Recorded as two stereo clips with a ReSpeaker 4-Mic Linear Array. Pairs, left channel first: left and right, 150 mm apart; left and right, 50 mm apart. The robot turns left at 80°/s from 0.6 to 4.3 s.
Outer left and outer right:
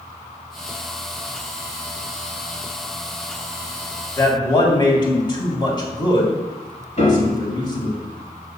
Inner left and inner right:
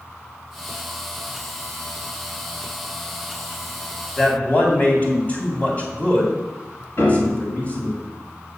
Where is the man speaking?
20° left (ahead or behind), 3 m; by 8.0 s 30° left (ahead or behind), 3 m.